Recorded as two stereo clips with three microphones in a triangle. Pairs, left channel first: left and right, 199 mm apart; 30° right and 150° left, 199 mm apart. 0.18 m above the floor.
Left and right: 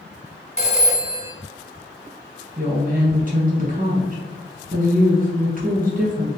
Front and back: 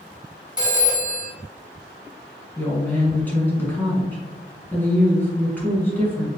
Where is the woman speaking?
110° right, 1.7 m.